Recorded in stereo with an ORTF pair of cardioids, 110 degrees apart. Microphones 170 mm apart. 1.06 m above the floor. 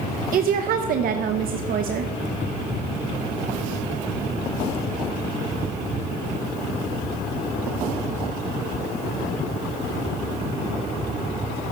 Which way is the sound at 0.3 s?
60° right.